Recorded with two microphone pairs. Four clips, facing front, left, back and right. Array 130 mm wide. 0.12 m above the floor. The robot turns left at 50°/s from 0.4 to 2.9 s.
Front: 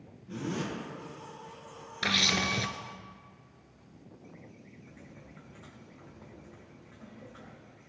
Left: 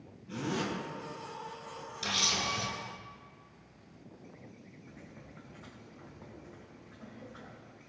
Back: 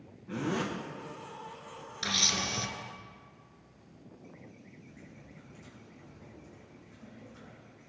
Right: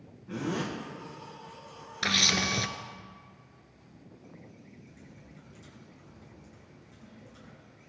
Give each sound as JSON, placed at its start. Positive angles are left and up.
{"t": 0.3, "sound": "a zipper", "azimuth_deg": -145, "distance_m": 3.5}
{"t": 2.0, "sound": "a camera shutter", "azimuth_deg": -20, "distance_m": 0.8}
{"t": 4.8, "sound": "typing on a keyboard", "azimuth_deg": 50, "distance_m": 3.5}